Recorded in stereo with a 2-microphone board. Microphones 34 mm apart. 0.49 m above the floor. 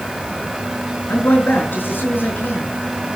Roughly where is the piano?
No piano in this recording.